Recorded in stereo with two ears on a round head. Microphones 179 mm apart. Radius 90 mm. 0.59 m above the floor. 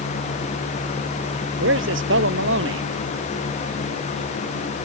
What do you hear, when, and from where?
1.6 s a man speaking: 65° right (ahead or behind)